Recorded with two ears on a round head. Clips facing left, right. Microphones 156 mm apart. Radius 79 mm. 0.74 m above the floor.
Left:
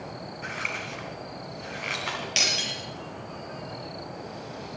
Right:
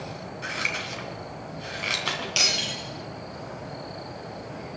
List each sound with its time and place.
0.4 s scissors: 50° right (ahead or behind), 3 m
2.4 s breaking glass: 15° left (ahead or behind), 5.5 m